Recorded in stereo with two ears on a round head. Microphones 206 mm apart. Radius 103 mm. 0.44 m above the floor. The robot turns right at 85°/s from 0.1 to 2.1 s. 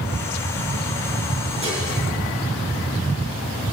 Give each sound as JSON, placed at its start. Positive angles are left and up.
{"t": 1.6, "sound": "dishes clattering", "side_deg": -25, "distance_m": 5.0}